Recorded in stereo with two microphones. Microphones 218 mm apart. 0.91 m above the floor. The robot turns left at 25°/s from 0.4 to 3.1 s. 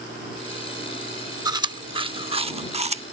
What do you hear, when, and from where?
1.4 s chewing: 20° right (ahead or behind); by 3.0 s 30° right (ahead or behind)